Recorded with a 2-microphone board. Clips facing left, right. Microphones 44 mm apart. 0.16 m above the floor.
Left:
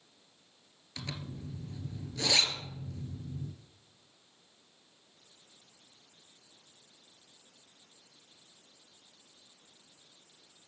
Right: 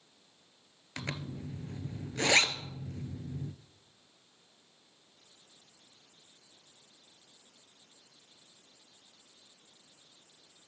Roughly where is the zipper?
Right.